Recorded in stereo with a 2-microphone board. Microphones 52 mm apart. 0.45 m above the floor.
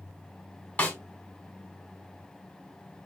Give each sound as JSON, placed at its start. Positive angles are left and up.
{"t": 0.8, "sound": "a snare drum", "side_deg": 30, "distance_m": 1.2}